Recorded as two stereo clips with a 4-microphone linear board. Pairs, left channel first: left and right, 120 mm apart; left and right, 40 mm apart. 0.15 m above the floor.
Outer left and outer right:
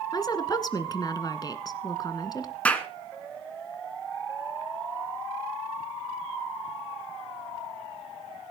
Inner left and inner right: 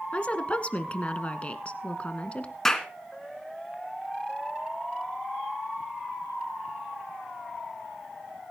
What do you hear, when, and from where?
0.1 s a woman speaking: 35° left (ahead or behind), 1.5 m
2.6 s a clap: 10° left (ahead or behind), 1.7 m